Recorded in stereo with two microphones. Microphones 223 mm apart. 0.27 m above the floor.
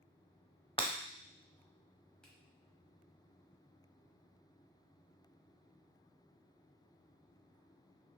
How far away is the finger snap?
About 1.1 m.